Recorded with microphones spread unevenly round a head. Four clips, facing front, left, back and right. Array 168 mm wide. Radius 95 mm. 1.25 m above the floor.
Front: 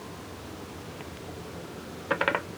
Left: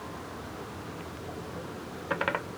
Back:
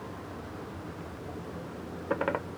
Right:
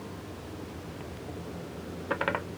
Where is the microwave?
No microwave in this recording.